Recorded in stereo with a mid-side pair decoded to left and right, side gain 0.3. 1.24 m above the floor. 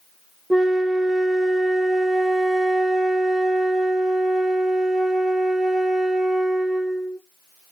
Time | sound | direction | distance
0.5 | a flute | 5° right | 1.0 m